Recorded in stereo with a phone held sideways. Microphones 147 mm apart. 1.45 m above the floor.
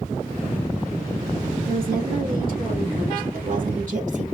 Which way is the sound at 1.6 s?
85° right.